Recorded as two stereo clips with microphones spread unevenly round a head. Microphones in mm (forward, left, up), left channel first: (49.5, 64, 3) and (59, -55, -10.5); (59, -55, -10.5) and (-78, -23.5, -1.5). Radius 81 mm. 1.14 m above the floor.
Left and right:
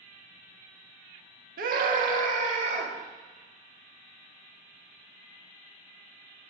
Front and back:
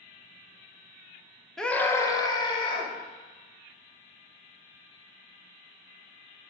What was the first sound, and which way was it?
A scream, 100° right.